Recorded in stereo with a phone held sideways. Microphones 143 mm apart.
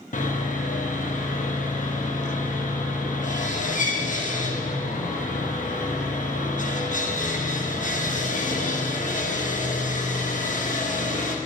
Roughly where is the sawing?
Left.